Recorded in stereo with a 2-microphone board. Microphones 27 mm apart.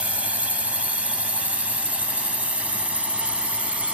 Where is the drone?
60° right (ahead or behind); by 4.0 s 55° right (ahead or behind).